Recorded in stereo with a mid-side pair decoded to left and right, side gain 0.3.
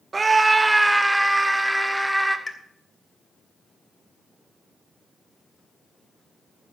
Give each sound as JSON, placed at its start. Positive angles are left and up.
{"t": 0.1, "sound": "a scream", "azimuth_deg": -45, "distance_m": 0.9}
{"t": 2.5, "sound": "a pop", "azimuth_deg": 35, "distance_m": 2.5}